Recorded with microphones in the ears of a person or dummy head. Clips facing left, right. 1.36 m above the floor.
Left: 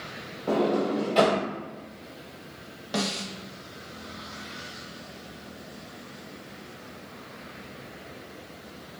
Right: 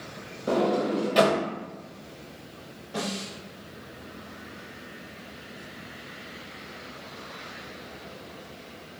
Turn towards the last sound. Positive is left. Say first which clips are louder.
# left 2 dB
turn(degrees=80)